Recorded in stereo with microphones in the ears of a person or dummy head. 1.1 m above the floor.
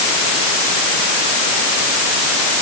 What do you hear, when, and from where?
Only background noise.